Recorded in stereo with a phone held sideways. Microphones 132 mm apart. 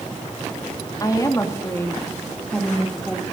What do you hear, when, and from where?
1.0 s a woman speaking: 30° left (ahead or behind), 3 m; by 3.2 s centre (ahead or behind), 2.5 m